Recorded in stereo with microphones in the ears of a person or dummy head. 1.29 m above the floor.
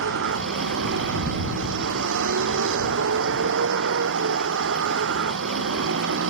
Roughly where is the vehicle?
Right.